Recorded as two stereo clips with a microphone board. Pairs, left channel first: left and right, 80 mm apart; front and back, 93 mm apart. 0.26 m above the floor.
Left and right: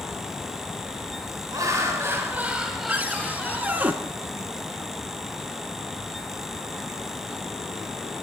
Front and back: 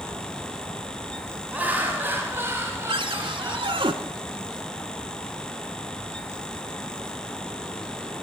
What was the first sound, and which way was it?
Laughter, 115° right.